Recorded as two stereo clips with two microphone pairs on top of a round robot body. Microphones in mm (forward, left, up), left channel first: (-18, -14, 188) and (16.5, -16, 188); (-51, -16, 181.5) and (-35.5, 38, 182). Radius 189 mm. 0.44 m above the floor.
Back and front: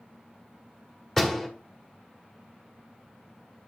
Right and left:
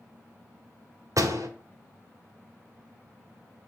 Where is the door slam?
95° left, 1.9 m.